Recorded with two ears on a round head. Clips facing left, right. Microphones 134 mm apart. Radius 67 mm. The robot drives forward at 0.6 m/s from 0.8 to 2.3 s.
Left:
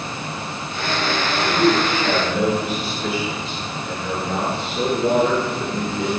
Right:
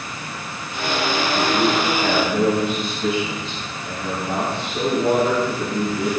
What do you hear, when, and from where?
1.4 s a man speaking: 55° right (ahead or behind), 5.5 m